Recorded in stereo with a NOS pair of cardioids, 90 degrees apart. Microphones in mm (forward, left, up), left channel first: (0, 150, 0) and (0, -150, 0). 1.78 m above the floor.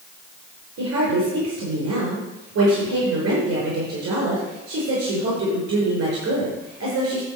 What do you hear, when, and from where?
0.8 s a woman speaking: 65° right, 6 m